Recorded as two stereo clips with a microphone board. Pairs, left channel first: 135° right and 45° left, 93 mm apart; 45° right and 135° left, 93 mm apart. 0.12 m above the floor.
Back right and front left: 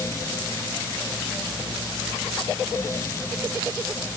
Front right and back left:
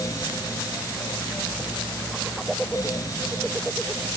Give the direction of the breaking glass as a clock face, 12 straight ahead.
I don't hear breaking glass.